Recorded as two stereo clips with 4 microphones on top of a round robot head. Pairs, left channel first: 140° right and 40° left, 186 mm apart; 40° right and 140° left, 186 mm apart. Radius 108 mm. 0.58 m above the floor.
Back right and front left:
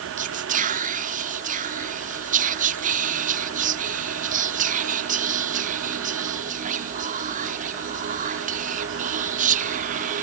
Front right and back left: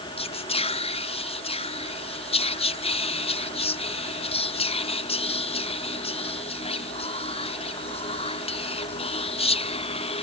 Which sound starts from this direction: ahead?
Whispering, at 0.2 s.